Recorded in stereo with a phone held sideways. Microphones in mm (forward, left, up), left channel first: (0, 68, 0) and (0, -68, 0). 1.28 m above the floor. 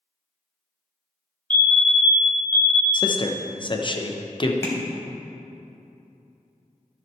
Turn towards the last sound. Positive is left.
turn(degrees=25)  # may be behind; listen again after turning